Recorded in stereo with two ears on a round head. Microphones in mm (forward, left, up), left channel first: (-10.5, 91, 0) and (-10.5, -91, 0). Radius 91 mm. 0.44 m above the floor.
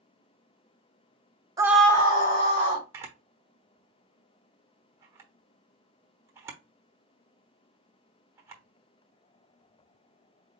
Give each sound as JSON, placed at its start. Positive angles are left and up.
{"t": 1.6, "sound": "a scream", "side_deg": -20, "distance_m": 0.9}
{"t": 2.9, "sound": "a camera shutter", "side_deg": -15, "distance_m": 1.0}